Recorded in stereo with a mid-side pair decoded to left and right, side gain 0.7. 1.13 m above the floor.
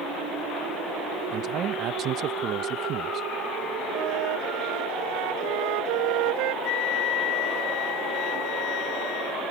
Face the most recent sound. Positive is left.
turn(degrees=65)